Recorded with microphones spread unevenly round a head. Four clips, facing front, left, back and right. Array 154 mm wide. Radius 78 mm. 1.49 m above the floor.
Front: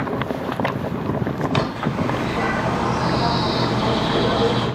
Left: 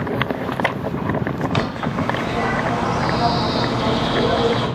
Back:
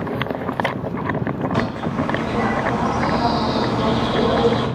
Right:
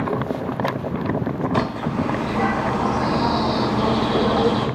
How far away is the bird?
About 1.3 m.